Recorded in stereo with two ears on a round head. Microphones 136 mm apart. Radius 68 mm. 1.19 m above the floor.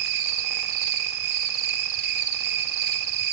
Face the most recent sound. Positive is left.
turn(degrees=-75)  # may be behind; listen again after turning